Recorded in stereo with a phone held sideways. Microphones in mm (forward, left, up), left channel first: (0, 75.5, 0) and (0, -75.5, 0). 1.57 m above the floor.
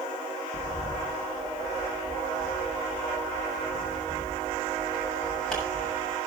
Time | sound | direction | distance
0.5 | a bird | 5° left (ahead or behind) | 8 m